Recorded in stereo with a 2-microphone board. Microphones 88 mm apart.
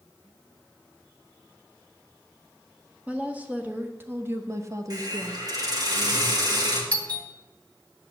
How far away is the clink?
I don't hear a clink.